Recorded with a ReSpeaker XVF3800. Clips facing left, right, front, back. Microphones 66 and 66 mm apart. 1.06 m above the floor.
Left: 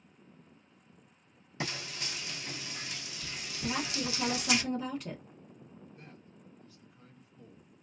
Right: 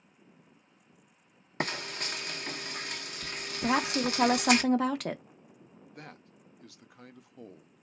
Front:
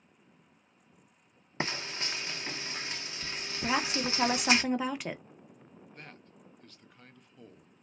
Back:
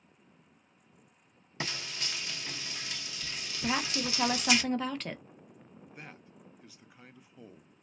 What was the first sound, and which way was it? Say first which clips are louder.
Frying: right 5 dB, front 3 dB; 55° right.